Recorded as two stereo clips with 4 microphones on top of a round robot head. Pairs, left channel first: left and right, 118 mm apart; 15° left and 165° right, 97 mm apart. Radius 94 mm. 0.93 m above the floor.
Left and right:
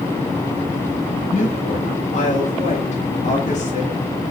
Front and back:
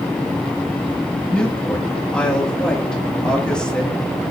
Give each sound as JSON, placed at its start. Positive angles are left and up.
{"t": 1.3, "sound": "a woman speaking", "azimuth_deg": 95, "distance_m": 2.5}